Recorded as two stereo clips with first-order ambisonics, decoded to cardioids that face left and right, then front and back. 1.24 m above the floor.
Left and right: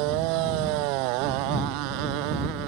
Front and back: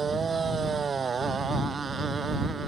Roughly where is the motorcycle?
Right.